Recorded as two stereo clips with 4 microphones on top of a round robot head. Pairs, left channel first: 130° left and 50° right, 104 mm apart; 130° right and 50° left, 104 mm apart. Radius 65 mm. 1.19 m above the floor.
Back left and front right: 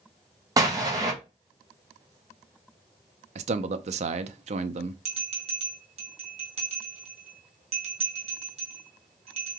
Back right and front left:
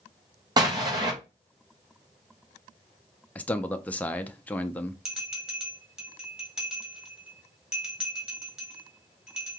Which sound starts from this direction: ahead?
An explosion, at 0.6 s.